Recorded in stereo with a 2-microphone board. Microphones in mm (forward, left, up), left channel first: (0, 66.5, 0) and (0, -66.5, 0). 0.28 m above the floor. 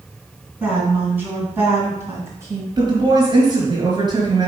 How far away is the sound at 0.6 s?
About 3 m.